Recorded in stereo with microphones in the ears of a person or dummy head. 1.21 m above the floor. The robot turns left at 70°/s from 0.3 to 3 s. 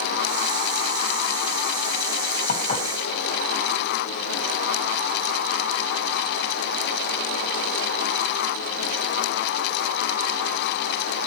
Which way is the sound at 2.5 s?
60° left (ahead or behind).